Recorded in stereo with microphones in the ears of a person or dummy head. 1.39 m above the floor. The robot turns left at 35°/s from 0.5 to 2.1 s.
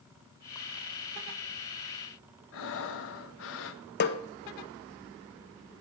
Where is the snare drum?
50° left (ahead or behind), 0.6 m.